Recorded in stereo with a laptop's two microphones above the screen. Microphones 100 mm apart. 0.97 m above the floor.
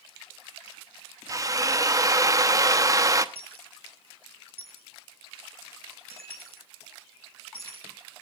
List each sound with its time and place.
1.3 s a drill: 30° right (ahead or behind), 0.9 m
3.4 s a dropped coin: 65° right (ahead or behind), 4.5 m